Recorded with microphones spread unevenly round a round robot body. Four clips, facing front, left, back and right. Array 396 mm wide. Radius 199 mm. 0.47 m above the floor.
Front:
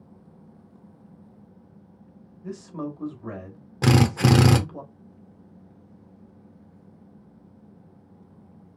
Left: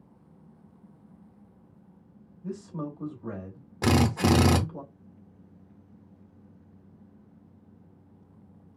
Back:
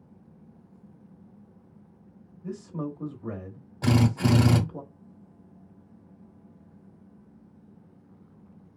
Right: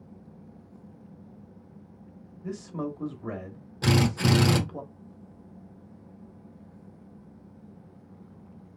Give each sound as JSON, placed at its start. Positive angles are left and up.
{"t": 2.4, "sound": "a man speaking", "azimuth_deg": -120, "distance_m": 1.3}
{"t": 3.8, "sound": "a drill", "azimuth_deg": 15, "distance_m": 0.9}